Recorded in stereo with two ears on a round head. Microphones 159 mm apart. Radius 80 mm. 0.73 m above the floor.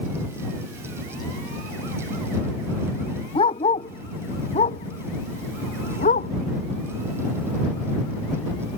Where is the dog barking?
30° left (ahead or behind); by 6.3 s 40° left (ahead or behind).